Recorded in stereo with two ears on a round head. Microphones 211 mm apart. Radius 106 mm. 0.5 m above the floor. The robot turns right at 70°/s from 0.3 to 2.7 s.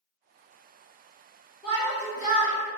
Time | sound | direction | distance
1.6 | a shout | 35° left | 1.5 m